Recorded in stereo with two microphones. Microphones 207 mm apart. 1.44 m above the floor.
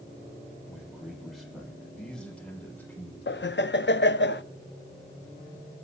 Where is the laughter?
60° left (ahead or behind), 0.5 m.